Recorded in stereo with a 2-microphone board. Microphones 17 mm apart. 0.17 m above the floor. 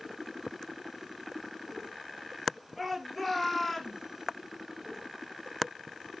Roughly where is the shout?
Centre.